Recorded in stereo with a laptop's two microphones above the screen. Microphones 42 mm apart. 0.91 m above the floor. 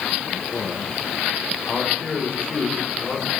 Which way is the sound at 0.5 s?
30° left (ahead or behind).